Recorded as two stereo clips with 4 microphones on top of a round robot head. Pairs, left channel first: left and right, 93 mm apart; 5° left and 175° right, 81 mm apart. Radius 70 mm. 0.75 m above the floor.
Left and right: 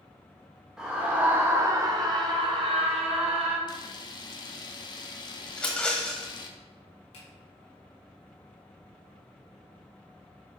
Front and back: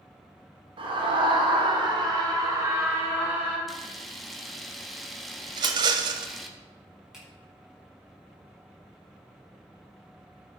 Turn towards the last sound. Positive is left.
turn(degrees=105)